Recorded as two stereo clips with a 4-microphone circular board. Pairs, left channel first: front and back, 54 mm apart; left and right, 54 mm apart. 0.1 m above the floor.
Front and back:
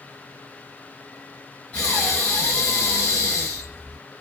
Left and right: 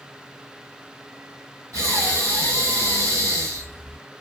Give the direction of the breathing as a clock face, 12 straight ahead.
2 o'clock.